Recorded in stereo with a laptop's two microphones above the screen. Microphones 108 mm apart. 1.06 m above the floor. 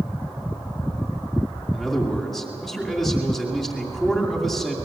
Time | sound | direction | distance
1.7 | a man speaking | centre (ahead or behind) | 2.5 m